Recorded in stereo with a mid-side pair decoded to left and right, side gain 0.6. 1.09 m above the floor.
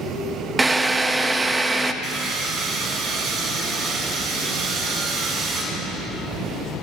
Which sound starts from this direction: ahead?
A drill, at 0.6 s.